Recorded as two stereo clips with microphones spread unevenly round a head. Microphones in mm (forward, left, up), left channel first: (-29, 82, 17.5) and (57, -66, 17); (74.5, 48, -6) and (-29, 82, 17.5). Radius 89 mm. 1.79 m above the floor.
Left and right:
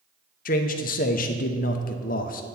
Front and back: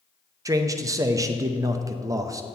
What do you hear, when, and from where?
0.5 s a man speaking: 135° left, 0.7 m